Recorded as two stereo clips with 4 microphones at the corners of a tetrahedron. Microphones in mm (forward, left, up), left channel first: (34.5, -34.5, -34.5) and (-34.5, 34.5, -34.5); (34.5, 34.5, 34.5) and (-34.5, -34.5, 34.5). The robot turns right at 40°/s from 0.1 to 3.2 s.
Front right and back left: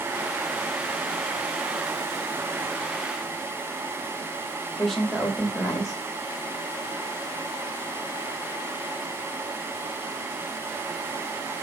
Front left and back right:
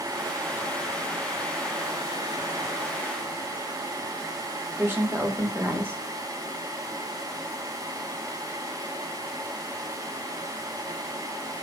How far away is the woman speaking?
About 0.8 m.